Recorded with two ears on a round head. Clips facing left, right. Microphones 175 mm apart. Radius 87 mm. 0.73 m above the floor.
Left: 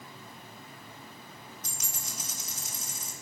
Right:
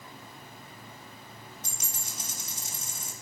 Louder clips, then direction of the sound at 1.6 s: Even; 25° right (ahead or behind).